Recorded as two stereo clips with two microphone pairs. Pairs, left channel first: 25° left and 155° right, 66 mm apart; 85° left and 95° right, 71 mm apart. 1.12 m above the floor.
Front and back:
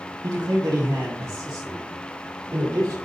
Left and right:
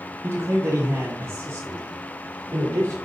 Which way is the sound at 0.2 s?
140° right.